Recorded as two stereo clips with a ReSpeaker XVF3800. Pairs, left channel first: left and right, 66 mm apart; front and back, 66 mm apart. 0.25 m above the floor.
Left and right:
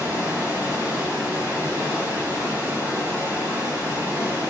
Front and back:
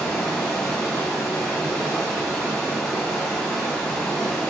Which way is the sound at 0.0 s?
70° right.